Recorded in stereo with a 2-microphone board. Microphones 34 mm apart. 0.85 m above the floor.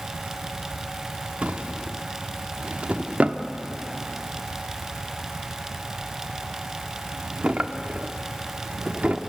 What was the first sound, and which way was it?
A drawer, 40° right (ahead or behind).